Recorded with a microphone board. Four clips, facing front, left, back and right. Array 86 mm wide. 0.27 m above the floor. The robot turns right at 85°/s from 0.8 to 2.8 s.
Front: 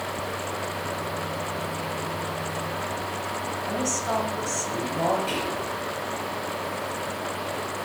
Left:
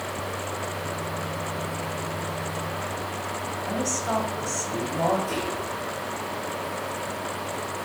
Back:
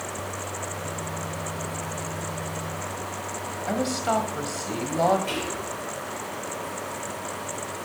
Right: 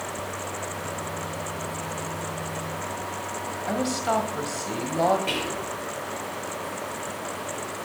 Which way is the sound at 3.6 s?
140° right.